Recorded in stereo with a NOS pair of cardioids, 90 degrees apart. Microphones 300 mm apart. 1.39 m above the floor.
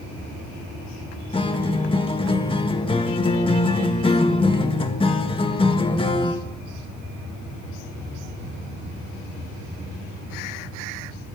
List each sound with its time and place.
1.3 s a guitar: 15° left, 1.8 m